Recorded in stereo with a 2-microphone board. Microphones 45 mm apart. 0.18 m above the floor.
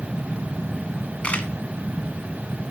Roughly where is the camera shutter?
Left.